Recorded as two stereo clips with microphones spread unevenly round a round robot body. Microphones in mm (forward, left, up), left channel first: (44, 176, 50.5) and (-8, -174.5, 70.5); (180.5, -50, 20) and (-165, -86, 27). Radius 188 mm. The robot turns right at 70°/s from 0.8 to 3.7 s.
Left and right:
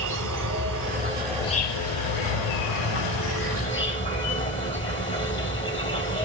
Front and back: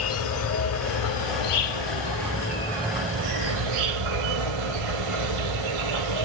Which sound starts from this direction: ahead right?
An insect, at 0.0 s.